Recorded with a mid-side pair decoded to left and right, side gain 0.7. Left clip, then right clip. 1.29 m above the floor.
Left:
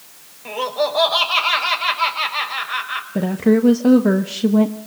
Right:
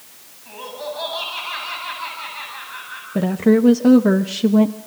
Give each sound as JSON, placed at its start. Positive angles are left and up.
{"t": 0.5, "sound": "laughter", "azimuth_deg": 70, "distance_m": 5.5}
{"t": 3.1, "sound": "a woman speaking", "azimuth_deg": -5, "distance_m": 1.1}